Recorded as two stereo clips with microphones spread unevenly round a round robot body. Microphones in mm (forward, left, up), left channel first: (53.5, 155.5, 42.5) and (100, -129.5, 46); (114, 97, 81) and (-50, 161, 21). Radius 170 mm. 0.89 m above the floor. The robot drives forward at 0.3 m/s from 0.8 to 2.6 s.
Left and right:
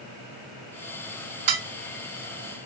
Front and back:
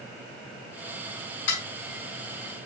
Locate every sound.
1.5 s dishes clattering: 60° right, 1.2 m